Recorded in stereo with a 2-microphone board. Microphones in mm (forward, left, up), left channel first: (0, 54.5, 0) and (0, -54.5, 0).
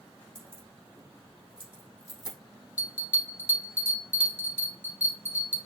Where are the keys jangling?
10° left (ahead or behind), 2 m; by 2.4 s 5° left (ahead or behind), 3.5 m.